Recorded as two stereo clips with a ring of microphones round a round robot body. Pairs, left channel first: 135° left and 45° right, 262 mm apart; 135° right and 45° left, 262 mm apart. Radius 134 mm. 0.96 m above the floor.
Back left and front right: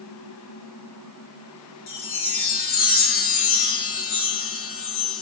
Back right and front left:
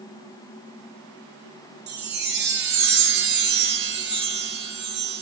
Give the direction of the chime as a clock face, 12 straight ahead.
9 o'clock.